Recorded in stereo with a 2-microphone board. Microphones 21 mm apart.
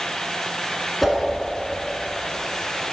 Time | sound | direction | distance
1.0 | a whoosh | 5° left (ahead or behind) | 1.6 m